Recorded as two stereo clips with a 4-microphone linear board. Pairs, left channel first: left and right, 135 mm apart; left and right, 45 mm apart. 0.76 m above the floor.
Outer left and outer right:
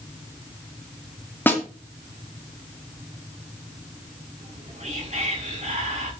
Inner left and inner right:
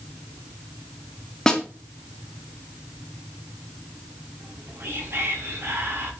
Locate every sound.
1.5 s a snare drum: 15° left (ahead or behind), 2.5 m
4.4 s whispering: 55° right (ahead or behind), 6 m